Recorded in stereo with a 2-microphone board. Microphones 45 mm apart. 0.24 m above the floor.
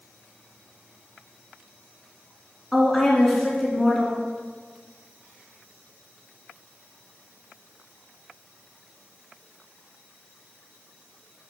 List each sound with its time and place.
2.7 s a woman speaking: 5° left (ahead or behind), 3 m